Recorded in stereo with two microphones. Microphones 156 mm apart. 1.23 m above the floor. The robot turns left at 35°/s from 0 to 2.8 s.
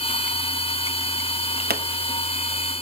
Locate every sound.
1.7 s a pop: 75° right (ahead or behind), 1.3 m; by 1.8 s 70° right (ahead or behind), 1.3 m